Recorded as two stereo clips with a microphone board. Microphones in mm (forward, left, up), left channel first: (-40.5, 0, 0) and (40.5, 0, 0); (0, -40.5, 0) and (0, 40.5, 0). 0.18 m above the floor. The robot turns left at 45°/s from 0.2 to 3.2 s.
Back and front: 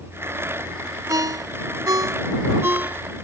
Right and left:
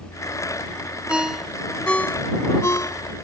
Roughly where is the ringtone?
Ahead.